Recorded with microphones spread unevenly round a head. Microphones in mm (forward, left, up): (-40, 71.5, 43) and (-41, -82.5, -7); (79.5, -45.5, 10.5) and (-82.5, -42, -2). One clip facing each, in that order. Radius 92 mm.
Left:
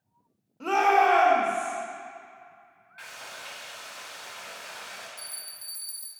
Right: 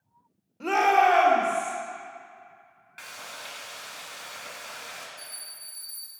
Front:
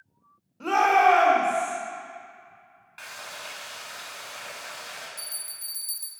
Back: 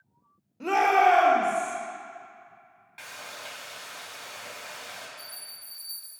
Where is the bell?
15° left, 0.6 m.